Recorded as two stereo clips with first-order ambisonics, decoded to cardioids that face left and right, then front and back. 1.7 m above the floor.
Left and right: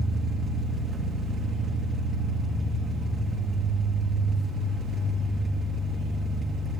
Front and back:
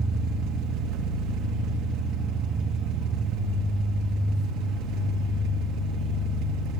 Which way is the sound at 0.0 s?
160° right.